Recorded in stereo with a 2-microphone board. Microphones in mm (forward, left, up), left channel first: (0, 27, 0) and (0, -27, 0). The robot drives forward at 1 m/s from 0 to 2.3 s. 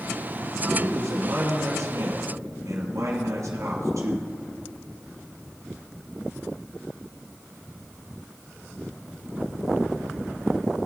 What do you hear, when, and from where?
0.8 s a man speaking: 55° right (ahead or behind), 3.5 m; by 4.3 s 70° right (ahead or behind), 3 m